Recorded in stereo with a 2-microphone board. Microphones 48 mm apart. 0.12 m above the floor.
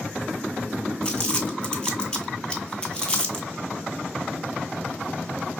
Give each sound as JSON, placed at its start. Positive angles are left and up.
{"t": 1.0, "sound": "crumpling", "side_deg": 15, "distance_m": 0.9}